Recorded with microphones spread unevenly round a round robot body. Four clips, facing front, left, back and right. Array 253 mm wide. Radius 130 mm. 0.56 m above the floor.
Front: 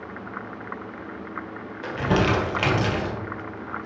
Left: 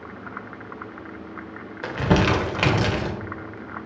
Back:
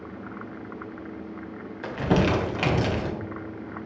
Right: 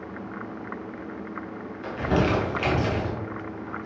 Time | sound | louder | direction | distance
1.8 | crumpling | left 3 dB, front 1 dB | 75° left | 1.7 m